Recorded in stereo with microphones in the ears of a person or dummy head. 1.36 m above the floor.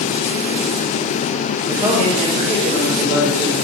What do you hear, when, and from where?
1.7 s a man speaking: 20° right (ahead or behind), 0.6 m; by 3.5 s 55° right (ahead or behind), 1.4 m